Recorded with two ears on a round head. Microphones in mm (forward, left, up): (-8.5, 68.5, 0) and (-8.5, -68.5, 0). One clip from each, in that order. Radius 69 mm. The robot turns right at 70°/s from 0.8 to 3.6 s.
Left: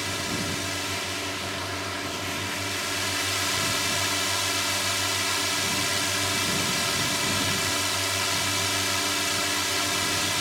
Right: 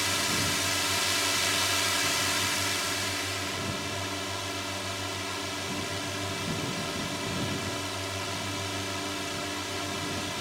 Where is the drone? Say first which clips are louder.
Right 1 dB; 150° right; by 10.4 s 45° left.